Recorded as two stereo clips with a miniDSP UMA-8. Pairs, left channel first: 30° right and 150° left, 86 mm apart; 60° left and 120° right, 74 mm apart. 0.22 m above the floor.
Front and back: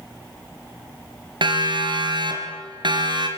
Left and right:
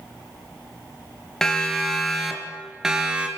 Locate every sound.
1.4 s a siren: 145° left, 4.5 m; by 3.3 s 165° left, 4 m